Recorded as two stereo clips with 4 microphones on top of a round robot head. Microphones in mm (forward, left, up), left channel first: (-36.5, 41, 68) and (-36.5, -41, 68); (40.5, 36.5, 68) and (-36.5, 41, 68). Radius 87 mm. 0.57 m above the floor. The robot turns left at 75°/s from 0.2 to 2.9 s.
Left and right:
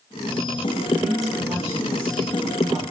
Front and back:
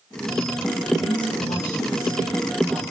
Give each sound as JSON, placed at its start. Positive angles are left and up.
{"t": 1.0, "sound": "a woman speaking", "azimuth_deg": 15, "distance_m": 5.5}